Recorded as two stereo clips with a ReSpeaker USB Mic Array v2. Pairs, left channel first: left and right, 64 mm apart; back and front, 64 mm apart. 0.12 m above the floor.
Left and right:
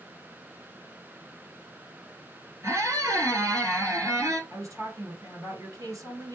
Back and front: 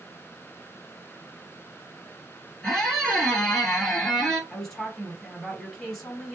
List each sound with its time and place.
2.6 s a squeak: 100° right, 1.8 m
4.5 s a woman speaking: 95° right, 2 m